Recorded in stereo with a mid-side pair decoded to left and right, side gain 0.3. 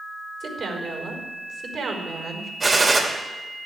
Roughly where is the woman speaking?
Ahead right.